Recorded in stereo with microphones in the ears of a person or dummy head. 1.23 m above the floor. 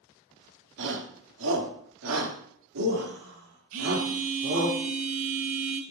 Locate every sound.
0.8 s a shout: 65° right (ahead or behind), 3.5 m; by 4.7 s 75° right (ahead or behind), 5 m
3.7 s a phone buzzing: 45° right (ahead or behind), 1.2 m